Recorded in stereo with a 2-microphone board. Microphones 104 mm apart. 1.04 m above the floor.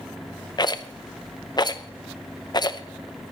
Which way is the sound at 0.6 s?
45° left (ahead or behind).